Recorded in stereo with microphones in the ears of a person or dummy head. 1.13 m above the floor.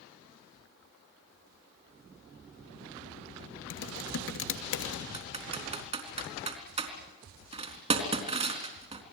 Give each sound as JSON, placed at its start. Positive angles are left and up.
{"t": 3.7, "sound": "typing on a keyboard", "side_deg": 70, "distance_m": 2.0}
{"t": 5.1, "sound": "typing on a keyboard", "side_deg": -40, "distance_m": 3.5}